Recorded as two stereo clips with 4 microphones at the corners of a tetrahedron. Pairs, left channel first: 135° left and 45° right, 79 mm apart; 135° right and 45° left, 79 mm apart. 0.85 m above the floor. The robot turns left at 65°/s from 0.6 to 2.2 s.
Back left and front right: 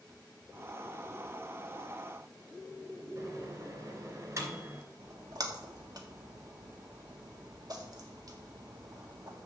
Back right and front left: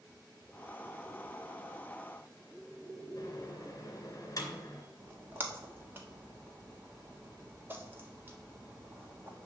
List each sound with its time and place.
3.2 s a microwave: 90° right, 2.5 m
5.0 s a splash: 15° right, 1.5 m